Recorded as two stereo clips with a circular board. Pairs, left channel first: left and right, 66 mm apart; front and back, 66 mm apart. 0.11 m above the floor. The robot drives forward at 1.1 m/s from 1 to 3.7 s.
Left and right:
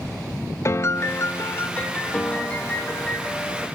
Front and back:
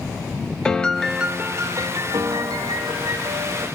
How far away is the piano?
About 0.6 m.